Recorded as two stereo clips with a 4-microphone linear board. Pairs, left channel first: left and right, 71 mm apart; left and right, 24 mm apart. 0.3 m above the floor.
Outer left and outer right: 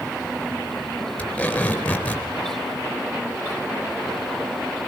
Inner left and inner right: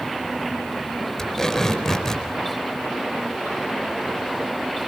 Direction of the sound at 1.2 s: 15° left (ahead or behind).